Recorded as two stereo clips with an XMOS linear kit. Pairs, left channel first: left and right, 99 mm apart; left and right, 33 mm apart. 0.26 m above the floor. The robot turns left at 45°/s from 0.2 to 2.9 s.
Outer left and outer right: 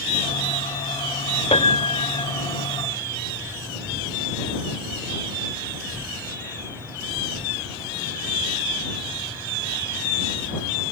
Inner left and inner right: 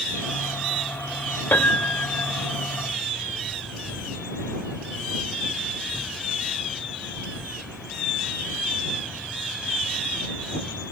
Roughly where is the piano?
Left.